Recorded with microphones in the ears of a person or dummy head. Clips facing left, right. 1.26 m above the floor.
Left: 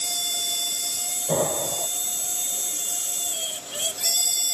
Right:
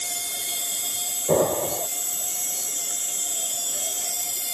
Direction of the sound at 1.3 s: 75° right (ahead or behind).